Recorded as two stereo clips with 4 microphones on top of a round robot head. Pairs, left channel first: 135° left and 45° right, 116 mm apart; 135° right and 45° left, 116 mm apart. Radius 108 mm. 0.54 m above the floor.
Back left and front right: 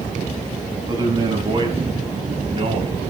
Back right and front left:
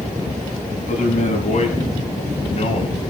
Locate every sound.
0.9 s a man speaking: 105° right, 5.5 m; by 3.0 s 90° right, 4 m